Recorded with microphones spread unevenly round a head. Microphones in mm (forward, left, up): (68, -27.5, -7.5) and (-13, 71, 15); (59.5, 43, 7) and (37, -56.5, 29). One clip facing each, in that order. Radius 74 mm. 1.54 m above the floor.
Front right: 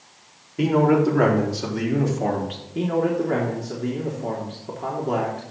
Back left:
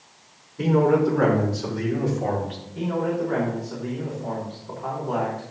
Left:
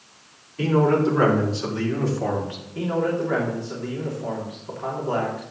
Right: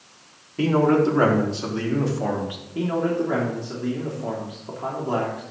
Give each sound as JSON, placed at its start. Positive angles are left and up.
{"t": 0.6, "sound": "a man speaking", "azimuth_deg": -60, "distance_m": 5.0}
{"t": 2.8, "sound": "a man speaking", "azimuth_deg": -40, "distance_m": 3.0}